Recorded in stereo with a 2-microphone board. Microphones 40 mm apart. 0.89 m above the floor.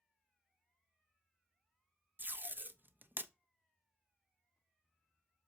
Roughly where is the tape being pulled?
Right.